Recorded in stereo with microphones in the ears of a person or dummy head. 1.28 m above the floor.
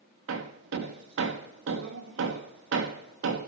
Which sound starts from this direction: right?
Hammering, at 0.3 s.